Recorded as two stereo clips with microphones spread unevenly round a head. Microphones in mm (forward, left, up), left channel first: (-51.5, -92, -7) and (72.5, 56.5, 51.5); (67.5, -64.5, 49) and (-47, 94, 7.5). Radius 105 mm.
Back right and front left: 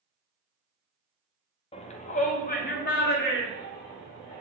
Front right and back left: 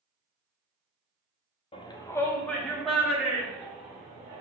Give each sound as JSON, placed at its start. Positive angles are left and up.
{"t": 1.7, "sound": "a shout", "azimuth_deg": -120, "distance_m": 0.7}